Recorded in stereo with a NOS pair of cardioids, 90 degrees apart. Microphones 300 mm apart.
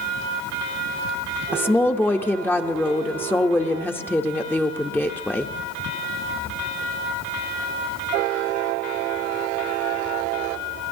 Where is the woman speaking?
5° left, 0.7 m.